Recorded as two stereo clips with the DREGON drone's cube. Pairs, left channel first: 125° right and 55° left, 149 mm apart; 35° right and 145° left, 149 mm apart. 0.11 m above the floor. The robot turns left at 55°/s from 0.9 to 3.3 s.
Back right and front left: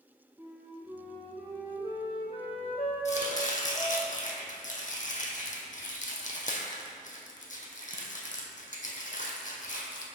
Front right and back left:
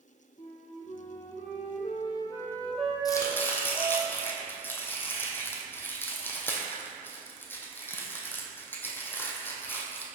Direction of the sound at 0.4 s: 20° right.